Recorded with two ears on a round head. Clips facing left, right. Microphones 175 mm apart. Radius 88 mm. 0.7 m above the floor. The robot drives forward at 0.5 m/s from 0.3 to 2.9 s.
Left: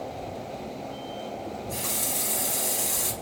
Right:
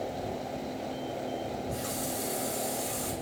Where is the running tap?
85° left, 3.5 m.